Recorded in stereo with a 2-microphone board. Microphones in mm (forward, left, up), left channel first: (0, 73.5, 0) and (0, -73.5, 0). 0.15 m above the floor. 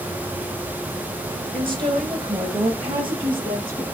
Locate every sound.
1.5 s a woman speaking: 35° right (ahead or behind), 2.5 m; by 3.8 s 30° right (ahead or behind), 4 m